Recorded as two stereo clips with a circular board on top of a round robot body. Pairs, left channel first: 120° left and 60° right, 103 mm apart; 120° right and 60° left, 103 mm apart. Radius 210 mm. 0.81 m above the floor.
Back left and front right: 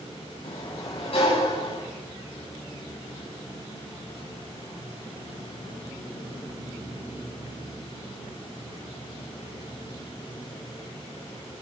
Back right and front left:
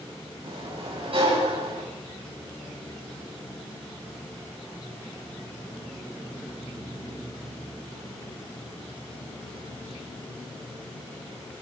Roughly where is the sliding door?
Left.